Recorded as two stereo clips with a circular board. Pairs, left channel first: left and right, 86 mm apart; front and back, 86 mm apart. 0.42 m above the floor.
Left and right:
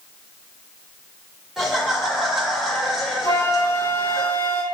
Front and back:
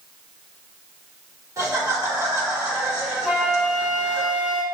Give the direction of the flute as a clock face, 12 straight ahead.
8 o'clock.